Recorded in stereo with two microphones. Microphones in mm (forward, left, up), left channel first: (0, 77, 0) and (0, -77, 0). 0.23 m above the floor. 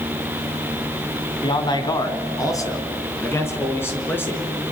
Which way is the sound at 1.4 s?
30° left (ahead or behind).